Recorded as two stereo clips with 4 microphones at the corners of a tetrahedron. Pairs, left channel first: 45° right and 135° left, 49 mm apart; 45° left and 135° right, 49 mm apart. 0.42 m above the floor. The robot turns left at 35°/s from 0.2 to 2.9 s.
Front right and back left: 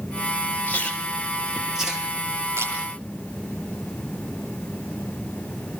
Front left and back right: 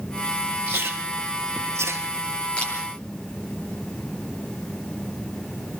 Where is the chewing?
105° right, 3.5 m; by 2.2 s 160° right, 3.5 m.